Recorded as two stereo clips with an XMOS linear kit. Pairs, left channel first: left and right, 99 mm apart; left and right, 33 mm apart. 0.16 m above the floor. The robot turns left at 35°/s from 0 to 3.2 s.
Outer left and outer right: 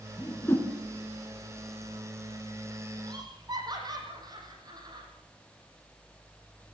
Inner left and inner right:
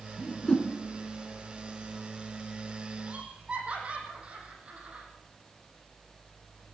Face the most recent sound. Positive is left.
turn(degrees=-45)  # may be behind; listen again after turning